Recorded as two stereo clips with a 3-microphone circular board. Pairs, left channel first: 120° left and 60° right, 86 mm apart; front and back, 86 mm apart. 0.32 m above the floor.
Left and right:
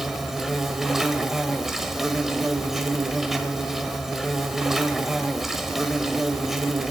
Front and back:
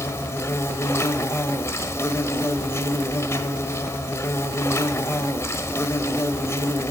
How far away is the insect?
About 1.4 m.